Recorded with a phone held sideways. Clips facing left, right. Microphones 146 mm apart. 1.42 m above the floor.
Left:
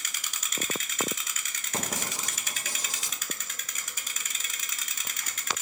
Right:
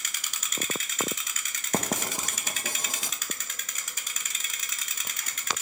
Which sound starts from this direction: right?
Writing, at 1.7 s.